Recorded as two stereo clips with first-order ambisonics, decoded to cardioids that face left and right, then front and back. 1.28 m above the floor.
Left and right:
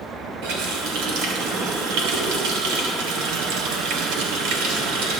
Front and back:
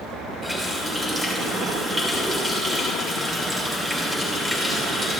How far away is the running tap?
About 3 m.